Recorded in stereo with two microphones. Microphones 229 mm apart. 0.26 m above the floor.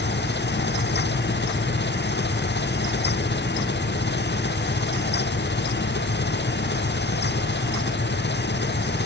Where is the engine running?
50° left (ahead or behind).